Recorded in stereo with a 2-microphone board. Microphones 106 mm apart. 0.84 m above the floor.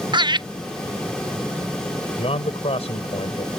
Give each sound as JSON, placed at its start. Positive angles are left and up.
{"t": 0.1, "sound": "laughter", "side_deg": -45}
{"t": 2.2, "sound": "a man speaking", "side_deg": 70}